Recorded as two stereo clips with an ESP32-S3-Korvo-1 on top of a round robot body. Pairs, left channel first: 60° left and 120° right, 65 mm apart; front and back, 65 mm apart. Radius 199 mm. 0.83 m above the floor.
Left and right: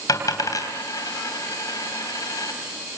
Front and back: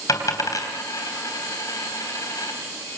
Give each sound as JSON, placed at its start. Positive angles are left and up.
{"t": 0.1, "sound": "a dropped coin", "azimuth_deg": 30, "distance_m": 3.0}